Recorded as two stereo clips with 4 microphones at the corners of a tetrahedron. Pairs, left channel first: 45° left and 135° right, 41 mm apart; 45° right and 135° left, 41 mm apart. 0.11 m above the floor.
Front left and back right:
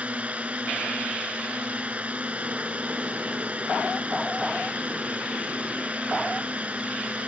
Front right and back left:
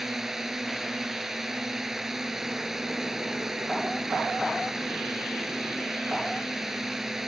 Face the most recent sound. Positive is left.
turn(degrees=-150)